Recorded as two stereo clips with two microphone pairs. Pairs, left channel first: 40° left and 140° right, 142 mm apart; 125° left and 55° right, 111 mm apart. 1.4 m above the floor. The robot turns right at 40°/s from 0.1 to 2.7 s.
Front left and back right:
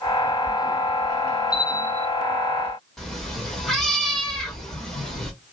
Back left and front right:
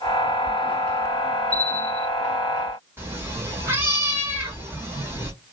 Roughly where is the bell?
Behind left.